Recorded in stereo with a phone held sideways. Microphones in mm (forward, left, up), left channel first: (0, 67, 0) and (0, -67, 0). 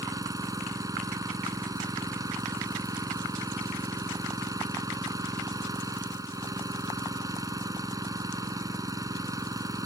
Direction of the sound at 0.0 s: 25° right (ahead or behind).